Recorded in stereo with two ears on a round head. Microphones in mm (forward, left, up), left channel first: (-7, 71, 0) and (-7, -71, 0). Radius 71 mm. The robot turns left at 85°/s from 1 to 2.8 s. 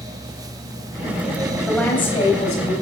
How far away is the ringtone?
I don't hear a ringtone.